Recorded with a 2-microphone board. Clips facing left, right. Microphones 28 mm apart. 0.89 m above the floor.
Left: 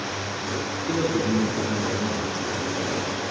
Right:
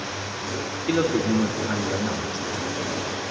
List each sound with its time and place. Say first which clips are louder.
0.9 s a man speaking: right 2 dB; 55° right (ahead or behind), 1.7 m